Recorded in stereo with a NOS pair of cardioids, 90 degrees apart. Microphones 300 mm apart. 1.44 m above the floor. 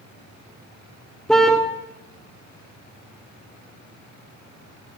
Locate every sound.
1.3 s a car horn: straight ahead, 2 m